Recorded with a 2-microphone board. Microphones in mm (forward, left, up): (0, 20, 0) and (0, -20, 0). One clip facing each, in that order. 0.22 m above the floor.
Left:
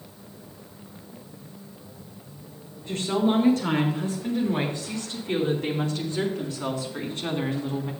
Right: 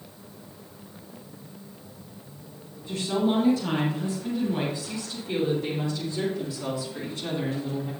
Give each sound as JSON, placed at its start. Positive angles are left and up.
{"t": 2.9, "sound": "a woman speaking", "side_deg": 60, "distance_m": 4.5}